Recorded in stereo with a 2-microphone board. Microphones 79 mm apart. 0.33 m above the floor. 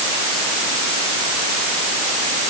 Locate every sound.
Only background noise.